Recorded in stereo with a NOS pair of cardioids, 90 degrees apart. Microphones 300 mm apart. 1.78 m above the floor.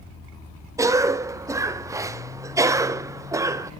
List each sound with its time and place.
0.8 s a cough: 10° right, 0.7 m